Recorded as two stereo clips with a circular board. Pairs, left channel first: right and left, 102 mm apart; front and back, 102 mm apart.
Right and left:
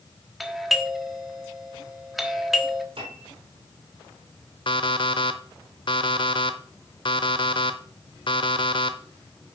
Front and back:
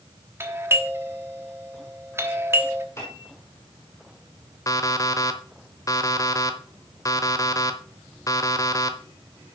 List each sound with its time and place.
0.4 s a doorbell: 175° left, 1.1 m
3.0 s a piano: 60° left, 3 m
4.7 s an alarm clock: 55° right, 0.9 m